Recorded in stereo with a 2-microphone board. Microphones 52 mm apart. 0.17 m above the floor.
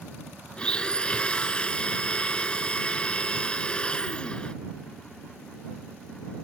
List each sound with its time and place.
0.6 s a blender: 20° left (ahead or behind)